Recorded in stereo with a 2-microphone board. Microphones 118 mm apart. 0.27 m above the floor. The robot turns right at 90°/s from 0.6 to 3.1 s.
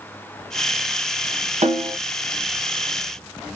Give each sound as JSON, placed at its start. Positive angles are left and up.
{"t": 1.6, "sound": "a snare drum", "azimuth_deg": -80, "distance_m": 0.8}